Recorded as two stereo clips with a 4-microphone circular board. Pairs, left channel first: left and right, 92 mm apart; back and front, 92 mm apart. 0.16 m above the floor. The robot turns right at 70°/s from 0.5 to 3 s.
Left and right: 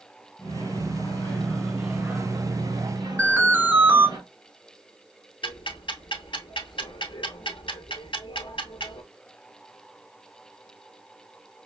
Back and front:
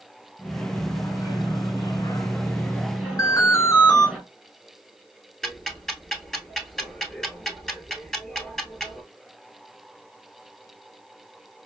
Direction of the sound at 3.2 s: 155° right.